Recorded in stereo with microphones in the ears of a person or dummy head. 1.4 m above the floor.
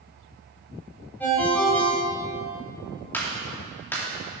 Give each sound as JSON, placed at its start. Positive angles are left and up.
{"t": 1.2, "sound": "a ringtone", "side_deg": 5, "distance_m": 3.0}
{"t": 3.1, "sound": "a clap", "side_deg": 10, "distance_m": 2.0}